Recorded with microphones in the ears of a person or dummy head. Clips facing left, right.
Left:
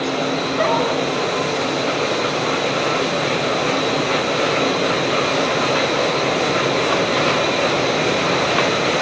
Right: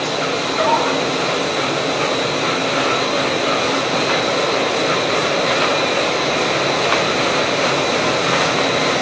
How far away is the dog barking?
About 4.5 m.